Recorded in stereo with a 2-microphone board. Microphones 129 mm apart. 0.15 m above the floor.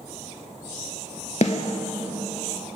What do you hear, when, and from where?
1.4 s a snare drum: 65° left (ahead or behind), 0.5 m